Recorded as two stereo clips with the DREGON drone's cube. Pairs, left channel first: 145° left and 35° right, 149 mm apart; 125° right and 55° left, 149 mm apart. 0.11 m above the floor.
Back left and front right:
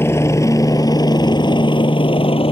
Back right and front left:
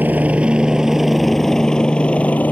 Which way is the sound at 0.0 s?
110° left.